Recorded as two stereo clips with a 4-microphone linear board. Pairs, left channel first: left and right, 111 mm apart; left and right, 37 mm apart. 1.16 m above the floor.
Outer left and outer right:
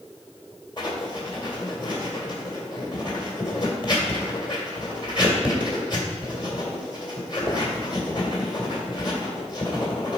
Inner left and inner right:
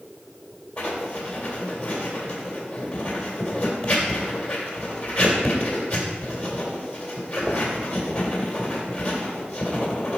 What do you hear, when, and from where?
0.8 s writing: 45° left (ahead or behind), 1.9 m